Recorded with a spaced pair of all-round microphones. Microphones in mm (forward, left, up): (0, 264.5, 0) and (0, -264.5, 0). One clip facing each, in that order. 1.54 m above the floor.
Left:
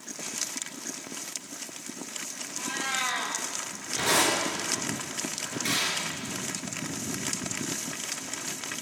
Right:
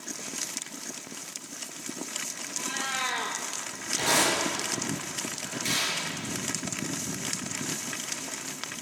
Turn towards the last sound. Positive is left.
turn(degrees=65)  # may be behind; listen again after turning